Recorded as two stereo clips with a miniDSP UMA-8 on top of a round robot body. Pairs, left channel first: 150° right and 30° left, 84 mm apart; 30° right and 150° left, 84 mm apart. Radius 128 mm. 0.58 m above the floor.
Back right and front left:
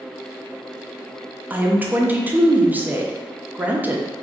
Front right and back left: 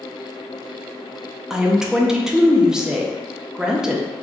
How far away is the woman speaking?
About 0.7 m.